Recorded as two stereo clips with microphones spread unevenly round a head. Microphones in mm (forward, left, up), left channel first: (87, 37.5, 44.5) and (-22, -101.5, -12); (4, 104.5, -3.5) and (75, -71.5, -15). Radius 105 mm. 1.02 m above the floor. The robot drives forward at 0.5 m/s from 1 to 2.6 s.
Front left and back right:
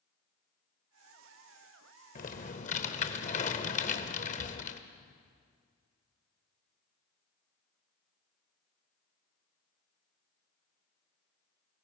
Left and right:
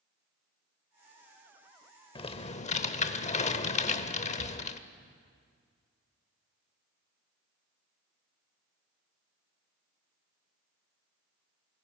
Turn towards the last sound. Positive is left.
turn(degrees=70)